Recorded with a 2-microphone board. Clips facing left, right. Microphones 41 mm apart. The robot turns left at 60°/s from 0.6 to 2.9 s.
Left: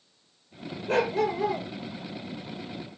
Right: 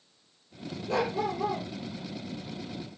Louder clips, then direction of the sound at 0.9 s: Left 4 dB; 140° left.